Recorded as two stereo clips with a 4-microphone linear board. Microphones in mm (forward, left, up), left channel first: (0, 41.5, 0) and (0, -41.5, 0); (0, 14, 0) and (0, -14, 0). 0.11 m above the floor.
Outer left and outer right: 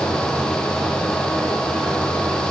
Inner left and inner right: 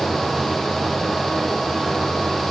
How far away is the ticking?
No ticking in this recording.